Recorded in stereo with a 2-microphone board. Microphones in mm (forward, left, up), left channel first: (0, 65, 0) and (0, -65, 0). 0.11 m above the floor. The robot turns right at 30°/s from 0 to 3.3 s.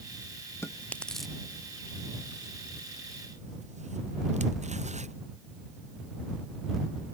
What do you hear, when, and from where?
0.6 s chewing: 20° left (ahead or behind); by 5.1 s 60° right (ahead or behind)